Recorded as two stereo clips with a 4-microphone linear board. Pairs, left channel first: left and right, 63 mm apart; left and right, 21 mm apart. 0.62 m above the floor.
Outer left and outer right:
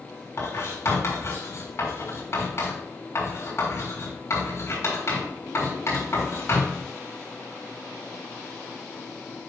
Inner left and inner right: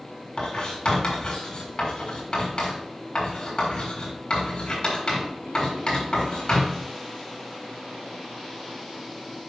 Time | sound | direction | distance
0.4 | writing | 50° left (ahead or behind) | 3.5 m